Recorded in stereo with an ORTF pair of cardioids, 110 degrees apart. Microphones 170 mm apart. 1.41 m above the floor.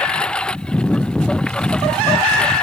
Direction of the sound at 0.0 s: 5° left.